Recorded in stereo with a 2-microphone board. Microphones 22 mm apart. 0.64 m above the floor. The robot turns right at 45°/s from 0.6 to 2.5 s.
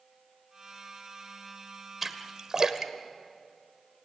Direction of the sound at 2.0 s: 10° right (ahead or behind).